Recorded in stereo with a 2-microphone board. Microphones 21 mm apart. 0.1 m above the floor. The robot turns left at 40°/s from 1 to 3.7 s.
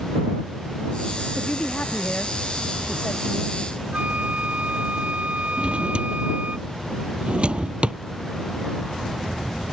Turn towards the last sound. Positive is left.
turn(degrees=-55)  # may be behind; listen again after turning